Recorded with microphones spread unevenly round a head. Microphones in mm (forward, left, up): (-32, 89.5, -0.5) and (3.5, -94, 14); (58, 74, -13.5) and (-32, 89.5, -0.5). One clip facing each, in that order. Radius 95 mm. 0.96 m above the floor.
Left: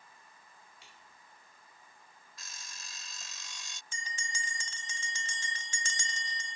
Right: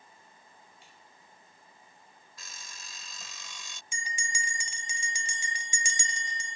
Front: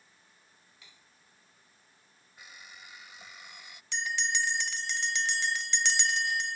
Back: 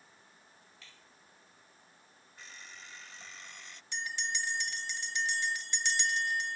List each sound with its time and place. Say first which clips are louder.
0.8 s cutlery clinking: right 2 dB, back 3 dB; 65° left
2.4 s an alarm clock: right 2 dB, even; 95° right
3.9 s a bell: right 4 dB, front 5 dB; straight ahead